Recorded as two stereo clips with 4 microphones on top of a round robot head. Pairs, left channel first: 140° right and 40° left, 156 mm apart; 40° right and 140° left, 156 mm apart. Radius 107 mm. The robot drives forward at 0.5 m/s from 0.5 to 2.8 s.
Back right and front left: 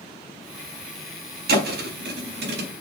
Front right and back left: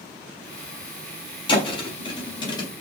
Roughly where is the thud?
Ahead.